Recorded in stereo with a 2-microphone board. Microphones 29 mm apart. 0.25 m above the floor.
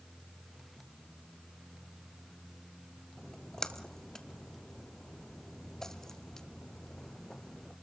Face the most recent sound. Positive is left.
turn(degrees=20)  # may be behind; listen again after turning